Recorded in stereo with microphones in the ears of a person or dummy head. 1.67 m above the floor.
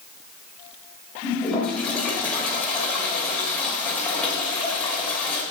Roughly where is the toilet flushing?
Centre.